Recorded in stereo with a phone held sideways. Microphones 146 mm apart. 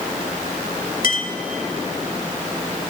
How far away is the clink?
About 1.9 m.